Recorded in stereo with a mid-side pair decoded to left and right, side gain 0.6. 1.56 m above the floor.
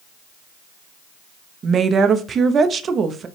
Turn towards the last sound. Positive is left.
turn(degrees=-40)